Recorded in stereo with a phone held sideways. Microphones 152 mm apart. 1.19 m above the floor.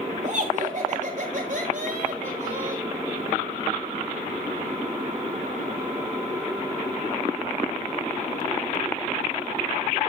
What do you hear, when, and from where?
0.2 s laughter: 55° right (ahead or behind), 6.5 m